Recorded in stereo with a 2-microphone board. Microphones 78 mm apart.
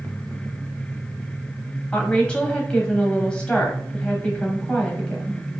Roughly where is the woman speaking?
Centre.